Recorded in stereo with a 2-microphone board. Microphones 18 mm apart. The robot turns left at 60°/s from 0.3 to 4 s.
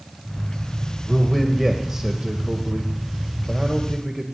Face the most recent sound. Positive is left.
turn(degrees=175)